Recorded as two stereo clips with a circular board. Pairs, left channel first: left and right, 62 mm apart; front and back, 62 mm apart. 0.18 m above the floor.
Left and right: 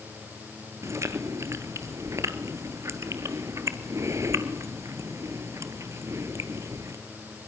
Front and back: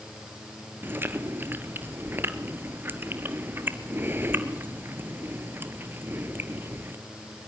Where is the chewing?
125° right, 1.3 m.